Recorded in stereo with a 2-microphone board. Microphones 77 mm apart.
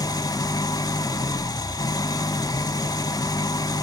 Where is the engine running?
60° left (ahead or behind), 0.8 m.